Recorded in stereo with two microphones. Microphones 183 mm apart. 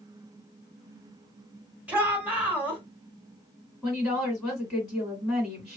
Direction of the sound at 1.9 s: 10° right (ahead or behind).